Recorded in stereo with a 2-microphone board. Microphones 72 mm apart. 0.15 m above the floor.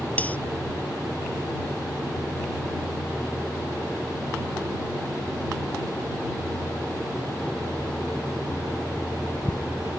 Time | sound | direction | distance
0.2 | cutlery clinking | 20° left (ahead or behind) | ?